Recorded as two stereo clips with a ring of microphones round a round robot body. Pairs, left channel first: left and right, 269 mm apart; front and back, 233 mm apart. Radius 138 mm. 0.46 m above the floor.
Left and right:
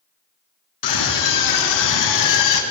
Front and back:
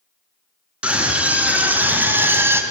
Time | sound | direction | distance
0.8 | a scream | 95° left | 5.5 m